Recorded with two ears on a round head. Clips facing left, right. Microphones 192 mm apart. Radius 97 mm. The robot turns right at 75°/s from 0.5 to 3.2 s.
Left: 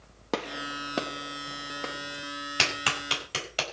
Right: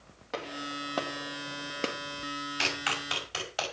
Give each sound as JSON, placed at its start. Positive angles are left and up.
{"t": 0.3, "sound": "a gunshot", "side_deg": 60, "distance_m": 1.6}
{"t": 2.6, "sound": "a clap", "side_deg": 80, "distance_m": 5.5}